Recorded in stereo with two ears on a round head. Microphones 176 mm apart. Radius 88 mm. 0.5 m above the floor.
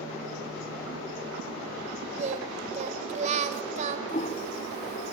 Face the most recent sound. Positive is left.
turn(degrees=35)  # may be behind; listen again after turning